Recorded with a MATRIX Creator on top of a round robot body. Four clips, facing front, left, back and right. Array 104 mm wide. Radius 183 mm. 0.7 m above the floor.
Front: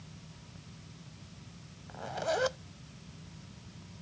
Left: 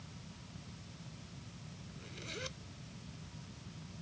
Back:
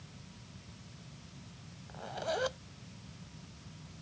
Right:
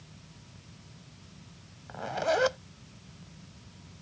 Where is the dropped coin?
No dropped coin in this recording.